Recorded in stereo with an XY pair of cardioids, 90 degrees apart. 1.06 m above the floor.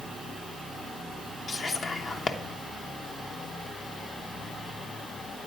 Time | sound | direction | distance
1.5 | whispering | 55° left | 0.9 m